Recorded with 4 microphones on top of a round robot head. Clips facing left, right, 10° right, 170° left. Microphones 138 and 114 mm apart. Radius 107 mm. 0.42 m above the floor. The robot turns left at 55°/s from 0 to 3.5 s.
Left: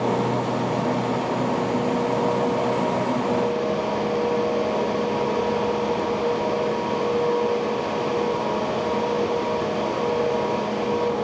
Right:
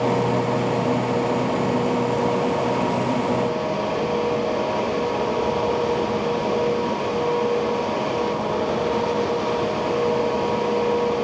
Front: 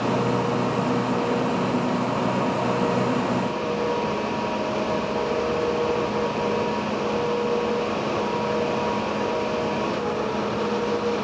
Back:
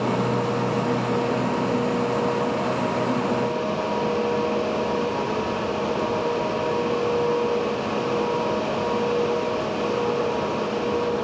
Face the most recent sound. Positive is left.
No sound to turn to.